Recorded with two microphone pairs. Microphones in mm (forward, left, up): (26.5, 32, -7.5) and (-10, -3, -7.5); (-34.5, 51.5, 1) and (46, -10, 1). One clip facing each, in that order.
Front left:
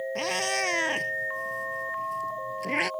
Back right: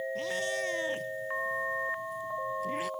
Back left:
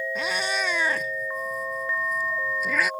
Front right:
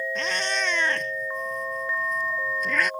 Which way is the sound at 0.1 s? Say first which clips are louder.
Front left 6 dB, back left 1 dB; 60° left.